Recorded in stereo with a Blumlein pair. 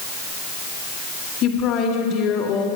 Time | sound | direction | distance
1.4 | a woman speaking | 35° left | 2.5 m